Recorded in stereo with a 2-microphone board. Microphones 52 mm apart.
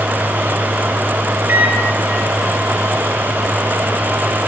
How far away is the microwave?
About 1.1 m.